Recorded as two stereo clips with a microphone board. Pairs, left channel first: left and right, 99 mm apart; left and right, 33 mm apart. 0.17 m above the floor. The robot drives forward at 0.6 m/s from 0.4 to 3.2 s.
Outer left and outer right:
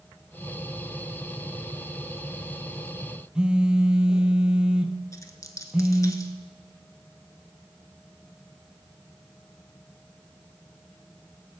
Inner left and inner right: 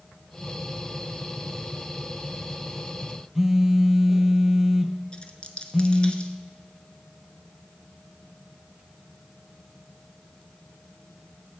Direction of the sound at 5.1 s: 35° left (ahead or behind).